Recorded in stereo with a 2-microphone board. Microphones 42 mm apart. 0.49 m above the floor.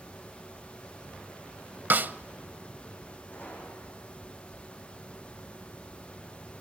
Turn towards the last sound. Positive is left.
turn(degrees=50)  # may be behind; listen again after turning